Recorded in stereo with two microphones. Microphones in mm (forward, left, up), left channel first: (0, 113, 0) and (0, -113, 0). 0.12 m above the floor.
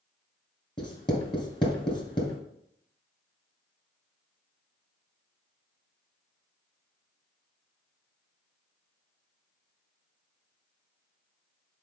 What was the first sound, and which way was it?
Writing, 20° left (ahead or behind).